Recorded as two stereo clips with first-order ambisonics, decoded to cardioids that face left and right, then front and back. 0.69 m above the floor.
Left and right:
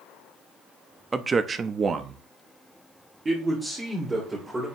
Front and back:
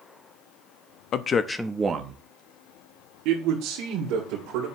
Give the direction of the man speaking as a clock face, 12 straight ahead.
1 o'clock.